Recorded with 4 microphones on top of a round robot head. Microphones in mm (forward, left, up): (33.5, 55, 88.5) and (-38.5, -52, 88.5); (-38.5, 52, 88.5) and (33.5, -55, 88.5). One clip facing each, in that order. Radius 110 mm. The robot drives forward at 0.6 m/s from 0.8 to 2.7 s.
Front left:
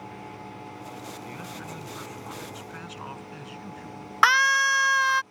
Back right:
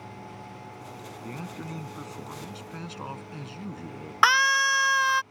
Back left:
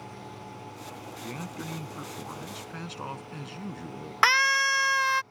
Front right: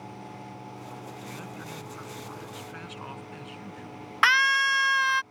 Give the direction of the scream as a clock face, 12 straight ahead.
7 o'clock.